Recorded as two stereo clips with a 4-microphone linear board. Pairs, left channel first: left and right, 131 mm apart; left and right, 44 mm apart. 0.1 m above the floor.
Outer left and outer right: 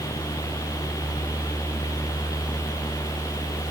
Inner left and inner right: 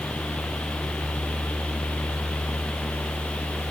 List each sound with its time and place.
Only background noise.